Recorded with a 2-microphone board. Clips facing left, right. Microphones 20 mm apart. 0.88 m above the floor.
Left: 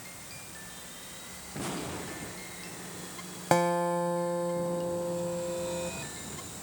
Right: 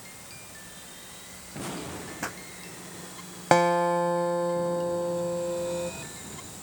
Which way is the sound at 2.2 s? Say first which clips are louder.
Right 7 dB; 60° right (ahead or behind).